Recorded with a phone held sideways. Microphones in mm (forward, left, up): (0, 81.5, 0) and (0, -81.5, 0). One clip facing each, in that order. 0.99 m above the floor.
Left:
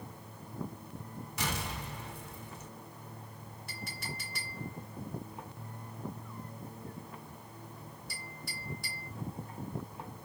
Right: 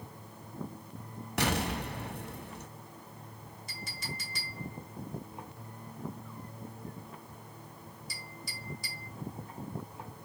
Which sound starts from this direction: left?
A clink, at 3.7 s.